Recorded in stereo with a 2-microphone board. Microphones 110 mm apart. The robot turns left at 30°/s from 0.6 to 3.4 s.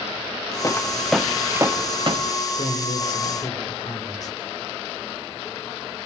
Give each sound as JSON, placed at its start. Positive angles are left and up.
{"t": 0.6, "sound": "footsteps", "side_deg": 25, "distance_m": 1.3}
{"t": 2.6, "sound": "a man speaking", "side_deg": 60, "distance_m": 8.5}